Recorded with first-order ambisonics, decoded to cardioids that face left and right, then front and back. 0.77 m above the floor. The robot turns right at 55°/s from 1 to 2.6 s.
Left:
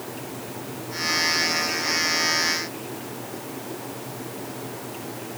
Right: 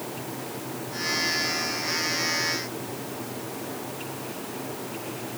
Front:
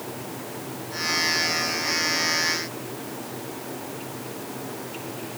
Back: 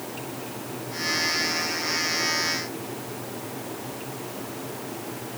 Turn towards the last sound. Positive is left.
No sound to turn to.